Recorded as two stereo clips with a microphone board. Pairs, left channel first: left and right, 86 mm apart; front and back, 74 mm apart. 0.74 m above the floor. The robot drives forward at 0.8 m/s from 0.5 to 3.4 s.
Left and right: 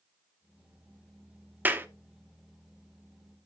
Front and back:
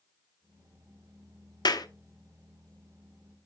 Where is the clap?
20° right, 0.9 m; by 1.9 s 25° right, 0.7 m.